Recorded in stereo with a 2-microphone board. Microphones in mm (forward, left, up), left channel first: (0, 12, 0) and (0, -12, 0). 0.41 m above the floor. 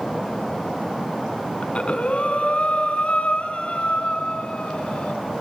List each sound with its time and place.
1.6 s breathing: 50° left (ahead or behind), 1.9 m